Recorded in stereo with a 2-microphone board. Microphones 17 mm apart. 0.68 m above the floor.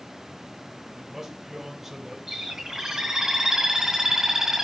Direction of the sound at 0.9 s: 15° right (ahead or behind).